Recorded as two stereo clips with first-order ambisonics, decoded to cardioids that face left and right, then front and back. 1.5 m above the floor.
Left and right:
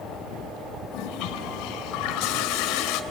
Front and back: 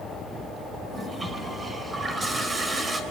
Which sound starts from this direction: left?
A toilet flushing, at 0.9 s.